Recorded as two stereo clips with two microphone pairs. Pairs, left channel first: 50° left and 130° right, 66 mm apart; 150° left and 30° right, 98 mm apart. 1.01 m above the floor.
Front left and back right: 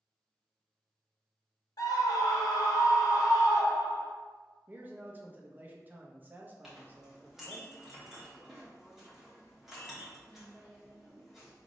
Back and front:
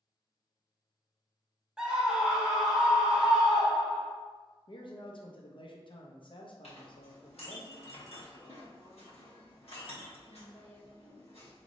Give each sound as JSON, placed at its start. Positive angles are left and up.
{"t": 1.8, "sound": "a scream", "azimuth_deg": 50, "distance_m": 1.1}
{"t": 4.7, "sound": "a man speaking", "azimuth_deg": 170, "distance_m": 0.6}
{"t": 6.6, "sound": "a clink", "azimuth_deg": 145, "distance_m": 1.1}